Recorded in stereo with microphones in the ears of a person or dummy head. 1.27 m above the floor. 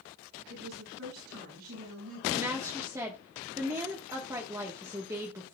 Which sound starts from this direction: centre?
A woman speaking, at 2.3 s.